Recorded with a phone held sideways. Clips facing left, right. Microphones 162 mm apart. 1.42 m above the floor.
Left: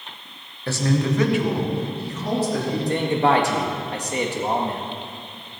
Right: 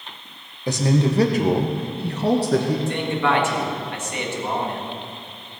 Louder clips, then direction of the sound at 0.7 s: Right 2 dB; 15° right (ahead or behind).